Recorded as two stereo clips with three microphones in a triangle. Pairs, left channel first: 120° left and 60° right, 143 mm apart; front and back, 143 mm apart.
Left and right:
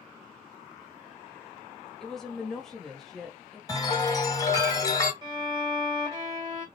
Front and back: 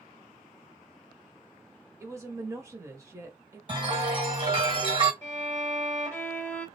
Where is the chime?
165° left, 1.5 m.